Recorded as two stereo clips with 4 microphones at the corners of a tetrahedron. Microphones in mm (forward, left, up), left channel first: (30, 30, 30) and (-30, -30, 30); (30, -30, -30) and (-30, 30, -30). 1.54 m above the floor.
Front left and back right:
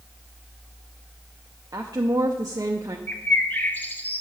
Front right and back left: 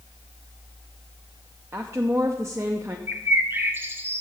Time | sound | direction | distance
1.7 | a woman speaking | 175° right | 0.6 m
3.1 | a bird | 95° left | 0.8 m